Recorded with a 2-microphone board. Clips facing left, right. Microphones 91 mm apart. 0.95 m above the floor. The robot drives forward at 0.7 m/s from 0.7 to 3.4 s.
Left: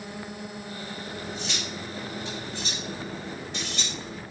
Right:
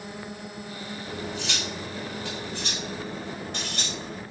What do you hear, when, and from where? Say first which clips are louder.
1.1 s cutlery clinking: right 3 dB; 75° right (ahead or behind), 1.8 m; by 4.2 s 55° right (ahead or behind), 2 m